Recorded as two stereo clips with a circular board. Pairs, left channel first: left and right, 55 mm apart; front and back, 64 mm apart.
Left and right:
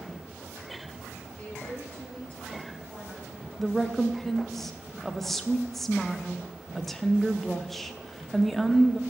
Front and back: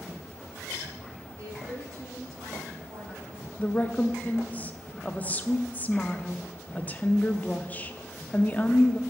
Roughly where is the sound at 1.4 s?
Behind left.